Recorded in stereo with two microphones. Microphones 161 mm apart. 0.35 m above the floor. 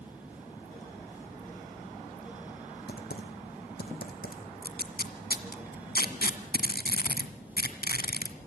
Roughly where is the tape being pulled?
Left.